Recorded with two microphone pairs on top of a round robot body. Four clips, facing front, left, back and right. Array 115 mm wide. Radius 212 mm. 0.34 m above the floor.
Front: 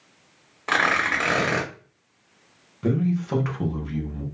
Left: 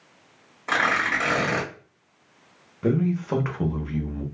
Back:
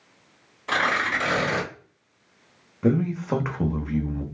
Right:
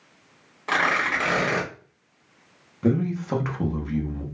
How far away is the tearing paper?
About 1.7 m.